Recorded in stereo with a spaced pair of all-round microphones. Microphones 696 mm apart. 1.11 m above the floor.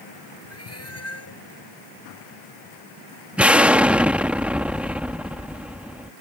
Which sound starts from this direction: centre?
An explosion, at 3.4 s.